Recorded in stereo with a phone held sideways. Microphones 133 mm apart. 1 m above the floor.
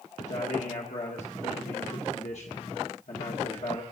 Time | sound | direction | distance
0.2 | a man speaking | 55° left (ahead or behind) | 1.5 m